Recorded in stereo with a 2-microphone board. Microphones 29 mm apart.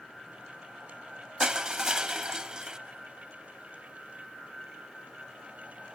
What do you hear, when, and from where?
1.4 s crushing: 25° right (ahead or behind), 0.9 m